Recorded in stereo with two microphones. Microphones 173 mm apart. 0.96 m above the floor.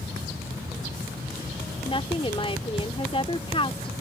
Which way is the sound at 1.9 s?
30° left (ahead or behind).